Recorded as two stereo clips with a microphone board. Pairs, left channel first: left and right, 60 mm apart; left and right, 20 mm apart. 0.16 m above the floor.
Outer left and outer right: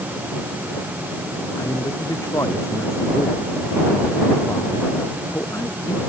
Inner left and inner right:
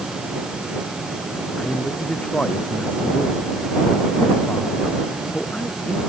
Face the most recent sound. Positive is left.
turn(degrees=55)  # may be behind; listen again after turning